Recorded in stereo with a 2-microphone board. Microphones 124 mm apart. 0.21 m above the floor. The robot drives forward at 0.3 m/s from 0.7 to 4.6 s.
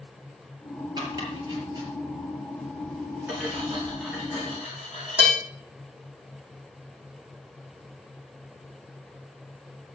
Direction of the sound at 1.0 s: 35° right (ahead or behind).